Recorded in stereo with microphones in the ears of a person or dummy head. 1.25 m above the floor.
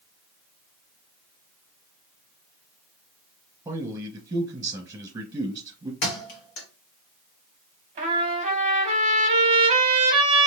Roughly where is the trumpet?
Right.